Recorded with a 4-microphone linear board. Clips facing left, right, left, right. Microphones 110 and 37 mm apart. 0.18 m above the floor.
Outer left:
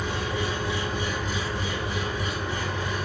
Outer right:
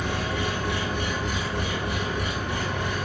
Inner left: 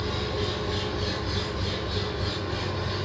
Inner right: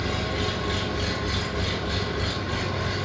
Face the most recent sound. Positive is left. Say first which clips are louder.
# outer right 1 dB, inner right 2 dB
turn(degrees=-60)  # may be behind; listen again after turning